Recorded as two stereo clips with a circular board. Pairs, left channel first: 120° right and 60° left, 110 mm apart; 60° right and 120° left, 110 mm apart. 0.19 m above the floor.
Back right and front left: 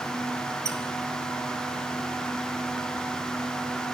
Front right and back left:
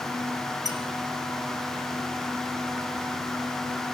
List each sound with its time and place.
0.7 s a squeak: straight ahead, 0.6 m